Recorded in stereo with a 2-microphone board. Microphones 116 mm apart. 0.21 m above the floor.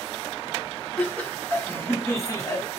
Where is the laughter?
10° left (ahead or behind), 1.7 m; by 2.8 s 35° left (ahead or behind), 1.4 m.